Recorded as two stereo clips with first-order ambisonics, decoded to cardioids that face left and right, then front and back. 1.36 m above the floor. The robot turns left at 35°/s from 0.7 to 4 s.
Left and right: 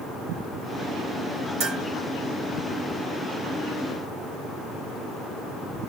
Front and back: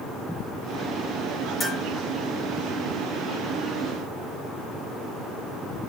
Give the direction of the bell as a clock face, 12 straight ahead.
2 o'clock.